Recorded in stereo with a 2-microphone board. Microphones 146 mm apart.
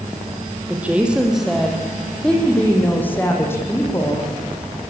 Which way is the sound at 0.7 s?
10° right (ahead or behind).